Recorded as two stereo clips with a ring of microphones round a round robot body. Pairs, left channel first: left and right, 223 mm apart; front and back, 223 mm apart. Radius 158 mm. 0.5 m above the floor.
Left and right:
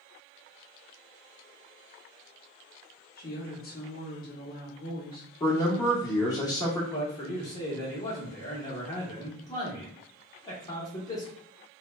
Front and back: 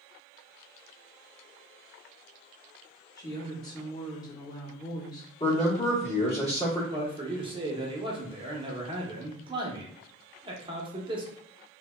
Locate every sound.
3.2 s a woman speaking: 65° left, 0.9 m
5.4 s a man speaking: 30° left, 1.0 m
6.9 s a man speaking: 145° left, 0.7 m